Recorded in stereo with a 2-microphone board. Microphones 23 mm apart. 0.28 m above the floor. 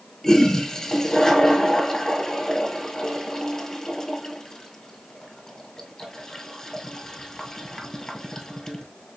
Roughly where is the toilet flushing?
Left.